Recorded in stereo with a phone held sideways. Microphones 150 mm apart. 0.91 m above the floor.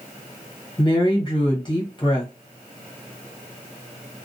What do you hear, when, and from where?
0.8 s a woman speaking: 30° left (ahead or behind), 0.8 m